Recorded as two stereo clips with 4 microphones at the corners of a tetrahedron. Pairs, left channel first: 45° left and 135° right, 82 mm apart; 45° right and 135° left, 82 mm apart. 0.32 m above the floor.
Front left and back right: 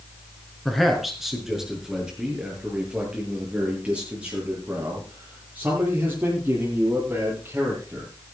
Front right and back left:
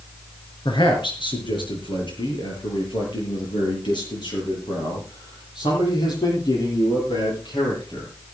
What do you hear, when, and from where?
0.7 s a man speaking: 45° right, 5 m; by 8.1 s 70° right, 12.5 m